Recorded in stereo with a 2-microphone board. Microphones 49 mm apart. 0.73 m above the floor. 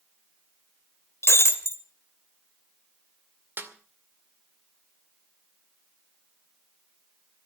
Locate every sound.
1.2 s breaking glass: 55° left (ahead or behind), 1.7 m
3.6 s a snare drum: 40° right (ahead or behind), 2 m